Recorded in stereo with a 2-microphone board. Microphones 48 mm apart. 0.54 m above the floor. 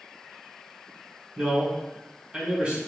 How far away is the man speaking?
About 1.5 m.